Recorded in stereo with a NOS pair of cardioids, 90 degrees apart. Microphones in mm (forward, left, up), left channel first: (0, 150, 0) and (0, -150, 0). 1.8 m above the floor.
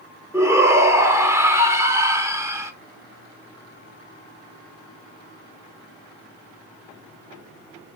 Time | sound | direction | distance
0.3 | a shout | 10° right | 1.0 m